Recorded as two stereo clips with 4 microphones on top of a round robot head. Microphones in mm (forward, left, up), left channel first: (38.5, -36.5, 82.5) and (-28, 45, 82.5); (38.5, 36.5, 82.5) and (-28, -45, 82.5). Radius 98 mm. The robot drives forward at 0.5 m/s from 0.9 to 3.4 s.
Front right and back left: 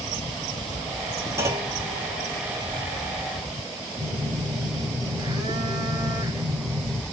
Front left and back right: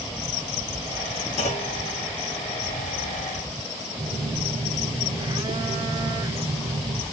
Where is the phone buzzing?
Straight behind, 1.1 m.